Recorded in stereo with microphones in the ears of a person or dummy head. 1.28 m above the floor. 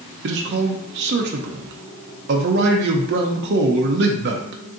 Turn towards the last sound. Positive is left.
turn(degrees=-50)  # may be behind; listen again after turning